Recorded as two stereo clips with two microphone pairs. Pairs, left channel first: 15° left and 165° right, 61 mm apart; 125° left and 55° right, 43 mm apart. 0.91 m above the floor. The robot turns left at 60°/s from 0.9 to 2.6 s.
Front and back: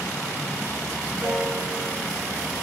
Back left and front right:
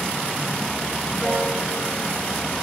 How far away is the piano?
About 8 m.